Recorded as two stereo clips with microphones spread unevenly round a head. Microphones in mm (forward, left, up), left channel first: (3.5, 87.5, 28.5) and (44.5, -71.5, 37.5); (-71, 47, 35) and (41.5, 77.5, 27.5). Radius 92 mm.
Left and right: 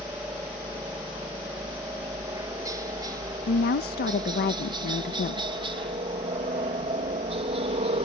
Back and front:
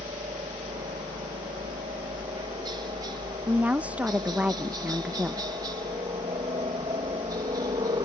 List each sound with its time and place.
0.0 s a helicopter: straight ahead; by 8.1 s 35° right
3.5 s a woman speaking: 90° left